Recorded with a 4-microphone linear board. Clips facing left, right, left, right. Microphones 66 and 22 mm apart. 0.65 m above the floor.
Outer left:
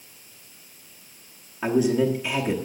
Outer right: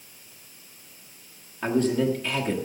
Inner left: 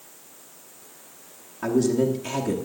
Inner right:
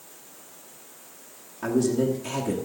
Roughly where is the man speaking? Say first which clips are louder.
Outer left 2 dB, inner left 2 dB; centre.